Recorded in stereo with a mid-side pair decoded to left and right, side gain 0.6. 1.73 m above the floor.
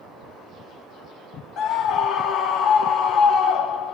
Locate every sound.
1.6 s a scream: 60° left, 0.7 m